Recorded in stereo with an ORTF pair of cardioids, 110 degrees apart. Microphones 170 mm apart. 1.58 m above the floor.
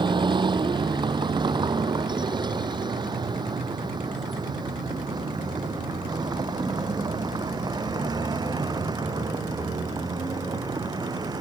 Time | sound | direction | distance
0.0 | a vehicle | 25° right | ?